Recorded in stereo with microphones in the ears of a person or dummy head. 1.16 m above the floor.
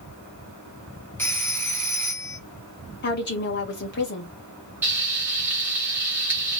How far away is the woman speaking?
About 1.4 m.